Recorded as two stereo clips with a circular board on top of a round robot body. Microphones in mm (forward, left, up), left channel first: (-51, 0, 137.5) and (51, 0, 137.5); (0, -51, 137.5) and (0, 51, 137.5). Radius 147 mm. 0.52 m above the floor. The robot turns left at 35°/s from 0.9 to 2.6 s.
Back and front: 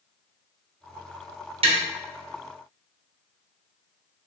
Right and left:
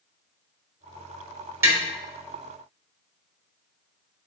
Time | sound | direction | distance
1.6 | tapping | 25° left | 0.9 m